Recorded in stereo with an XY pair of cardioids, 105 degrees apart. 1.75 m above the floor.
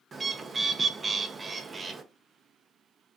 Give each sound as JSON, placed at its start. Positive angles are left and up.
{"t": 0.1, "sound": "a bird", "azimuth_deg": -30, "distance_m": 0.5}